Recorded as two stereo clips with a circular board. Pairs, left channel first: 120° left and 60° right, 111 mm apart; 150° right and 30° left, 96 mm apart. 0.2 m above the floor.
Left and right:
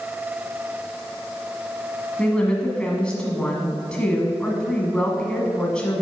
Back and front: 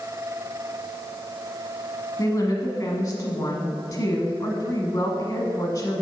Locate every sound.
2.2 s a woman speaking: 165° right, 1.3 m